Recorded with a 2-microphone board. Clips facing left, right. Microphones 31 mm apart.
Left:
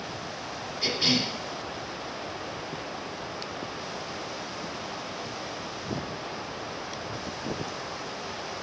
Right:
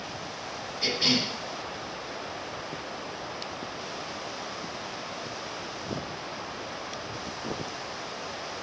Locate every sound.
0.8 s a cough: centre (ahead or behind), 1.4 m